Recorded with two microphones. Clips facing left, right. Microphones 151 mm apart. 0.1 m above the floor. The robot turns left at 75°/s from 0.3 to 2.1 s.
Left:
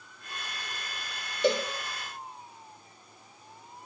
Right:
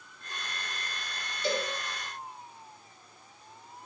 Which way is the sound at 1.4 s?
70° left (ahead or behind).